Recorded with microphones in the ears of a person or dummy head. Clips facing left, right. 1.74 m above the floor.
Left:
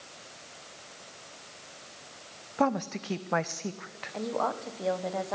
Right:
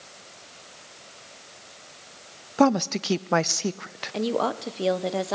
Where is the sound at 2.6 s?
55° right (ahead or behind), 0.6 m.